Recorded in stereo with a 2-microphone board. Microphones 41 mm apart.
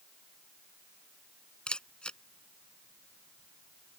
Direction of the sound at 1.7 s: 25° left (ahead or behind).